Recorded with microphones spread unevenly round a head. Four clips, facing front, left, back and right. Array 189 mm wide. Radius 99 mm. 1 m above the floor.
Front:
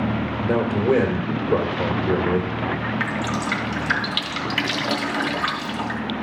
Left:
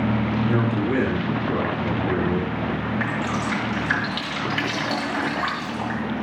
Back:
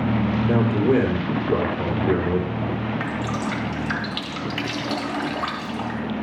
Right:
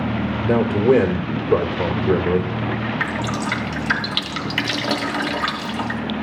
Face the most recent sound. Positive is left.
turn(degrees=-85)